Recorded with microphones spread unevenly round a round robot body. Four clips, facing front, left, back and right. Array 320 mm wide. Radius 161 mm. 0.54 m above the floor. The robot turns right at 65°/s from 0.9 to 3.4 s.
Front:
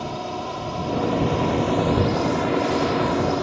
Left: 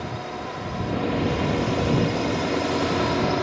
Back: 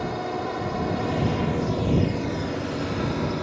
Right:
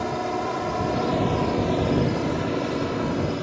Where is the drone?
105° right; by 3.4 s 60° left.